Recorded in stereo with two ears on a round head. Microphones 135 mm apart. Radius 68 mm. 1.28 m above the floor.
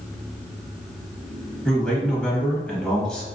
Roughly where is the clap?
I don't hear a clap.